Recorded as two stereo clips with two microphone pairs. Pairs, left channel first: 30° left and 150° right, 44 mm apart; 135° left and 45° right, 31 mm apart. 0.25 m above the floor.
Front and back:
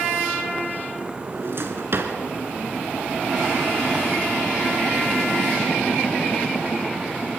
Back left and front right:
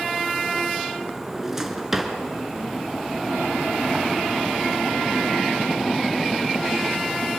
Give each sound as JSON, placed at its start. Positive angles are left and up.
{"t": 1.3, "sound": "a drawer", "azimuth_deg": -125, "distance_m": 2.5}